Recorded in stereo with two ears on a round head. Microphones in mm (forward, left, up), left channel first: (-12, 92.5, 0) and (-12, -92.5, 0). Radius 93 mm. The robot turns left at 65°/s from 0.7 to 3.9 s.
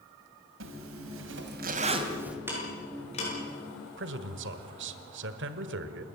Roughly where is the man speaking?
Right.